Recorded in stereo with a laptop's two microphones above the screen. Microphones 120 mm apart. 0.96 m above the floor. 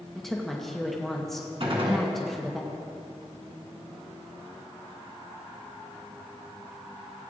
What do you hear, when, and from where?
0.1 s a woman speaking: 5° left (ahead or behind), 0.9 m
1.6 s a gunshot: 50° right (ahead or behind), 1.6 m